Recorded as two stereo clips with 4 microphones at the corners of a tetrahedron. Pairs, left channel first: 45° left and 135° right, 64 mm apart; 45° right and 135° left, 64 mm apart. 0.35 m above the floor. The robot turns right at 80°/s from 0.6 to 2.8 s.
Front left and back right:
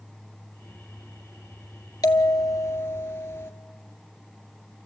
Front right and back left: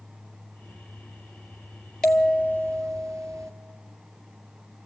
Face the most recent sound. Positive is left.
turn(degrees=100)